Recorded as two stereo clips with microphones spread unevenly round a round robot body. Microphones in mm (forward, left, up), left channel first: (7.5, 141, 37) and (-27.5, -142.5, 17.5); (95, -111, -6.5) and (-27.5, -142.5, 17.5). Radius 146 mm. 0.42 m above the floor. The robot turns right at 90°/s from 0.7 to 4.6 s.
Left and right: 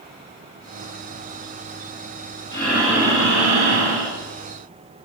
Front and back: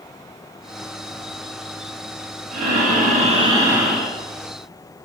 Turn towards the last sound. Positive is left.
turn(degrees=-20)